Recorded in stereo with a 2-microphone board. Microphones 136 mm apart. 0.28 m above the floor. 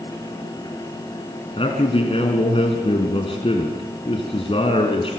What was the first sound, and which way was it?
A man speaking, 45° left (ahead or behind).